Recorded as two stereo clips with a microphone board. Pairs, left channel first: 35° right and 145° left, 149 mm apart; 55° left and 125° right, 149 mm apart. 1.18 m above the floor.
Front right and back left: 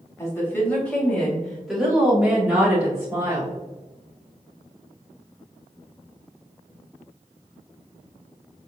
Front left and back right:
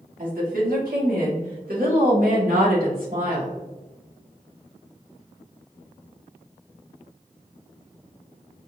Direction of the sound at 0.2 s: 105° right.